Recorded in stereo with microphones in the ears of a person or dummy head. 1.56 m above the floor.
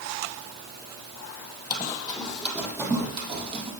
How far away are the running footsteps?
About 2.5 m.